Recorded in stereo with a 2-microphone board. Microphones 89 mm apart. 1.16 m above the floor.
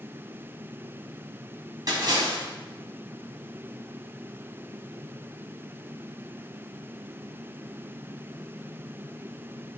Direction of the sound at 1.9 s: 50° right (ahead or behind).